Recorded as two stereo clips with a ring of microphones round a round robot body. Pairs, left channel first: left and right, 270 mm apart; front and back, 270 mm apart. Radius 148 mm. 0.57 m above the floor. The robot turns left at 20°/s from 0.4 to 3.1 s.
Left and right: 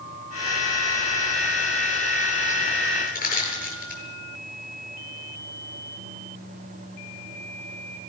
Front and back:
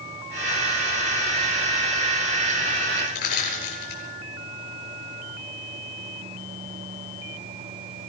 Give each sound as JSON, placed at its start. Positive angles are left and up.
{"t": 3.1, "sound": "crushing", "azimuth_deg": 30, "distance_m": 8.0}